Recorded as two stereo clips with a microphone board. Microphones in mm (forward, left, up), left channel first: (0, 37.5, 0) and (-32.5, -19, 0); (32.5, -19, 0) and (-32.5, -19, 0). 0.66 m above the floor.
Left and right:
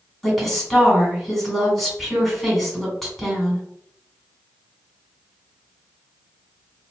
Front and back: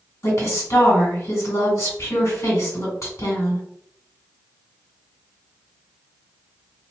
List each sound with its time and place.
0.2 s a woman speaking: 25° right, 1.9 m